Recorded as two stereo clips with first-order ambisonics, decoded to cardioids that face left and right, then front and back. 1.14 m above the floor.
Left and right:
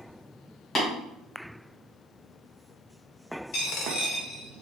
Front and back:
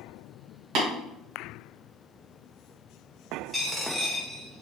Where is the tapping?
155° left, 1.8 m.